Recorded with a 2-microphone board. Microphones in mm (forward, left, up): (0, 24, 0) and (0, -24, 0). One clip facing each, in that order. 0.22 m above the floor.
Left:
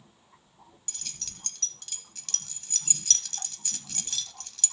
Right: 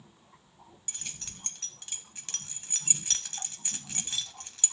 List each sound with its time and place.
0.9 s keys jangling: 25° right (ahead or behind), 0.7 m